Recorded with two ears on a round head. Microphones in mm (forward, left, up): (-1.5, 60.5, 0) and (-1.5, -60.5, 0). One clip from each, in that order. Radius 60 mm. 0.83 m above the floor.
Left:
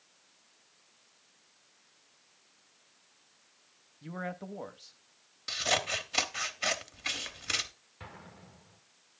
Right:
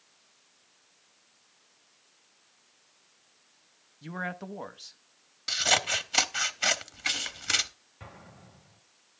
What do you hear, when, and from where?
4.0 s a man speaking: 30° right (ahead or behind), 0.7 m
5.5 s scissors: 15° right (ahead or behind), 0.7 m
8.0 s an explosion: 75° left (ahead or behind), 2 m